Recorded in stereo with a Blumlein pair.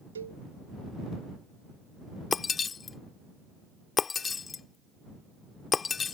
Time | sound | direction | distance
0.1 | a cowbell | 70° right | ?
2.3 | breaking glass | 20° left | ?